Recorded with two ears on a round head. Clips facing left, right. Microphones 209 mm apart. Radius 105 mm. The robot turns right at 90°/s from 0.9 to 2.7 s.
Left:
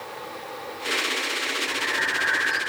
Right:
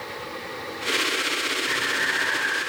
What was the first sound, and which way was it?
Breathing, 40° right.